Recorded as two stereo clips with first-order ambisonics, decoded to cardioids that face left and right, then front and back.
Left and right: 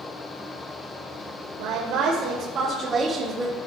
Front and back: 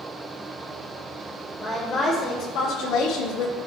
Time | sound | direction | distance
1.6 | a woman speaking | 85° right | 1.8 m